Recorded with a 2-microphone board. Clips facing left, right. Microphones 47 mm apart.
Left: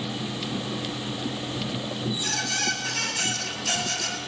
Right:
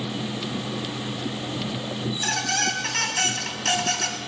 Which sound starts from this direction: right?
A squeak, at 2.1 s.